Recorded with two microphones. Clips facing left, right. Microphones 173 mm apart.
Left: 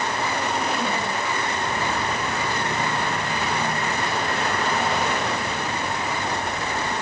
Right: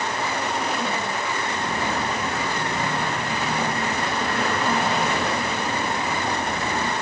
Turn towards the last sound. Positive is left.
turn(degrees=-85)